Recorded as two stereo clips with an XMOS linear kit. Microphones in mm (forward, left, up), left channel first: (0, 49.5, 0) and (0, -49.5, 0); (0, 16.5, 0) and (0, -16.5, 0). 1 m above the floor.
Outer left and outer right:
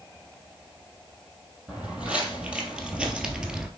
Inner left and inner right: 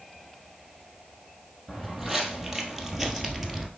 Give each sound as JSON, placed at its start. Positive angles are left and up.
{"t": 1.7, "sound": "footsteps", "side_deg": -10, "distance_m": 1.8}